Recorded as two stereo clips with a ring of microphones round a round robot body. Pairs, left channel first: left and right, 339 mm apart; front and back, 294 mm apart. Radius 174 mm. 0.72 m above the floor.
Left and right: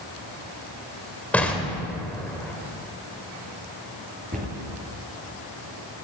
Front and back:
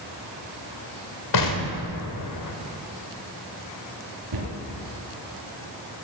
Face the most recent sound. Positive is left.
turn(degrees=-160)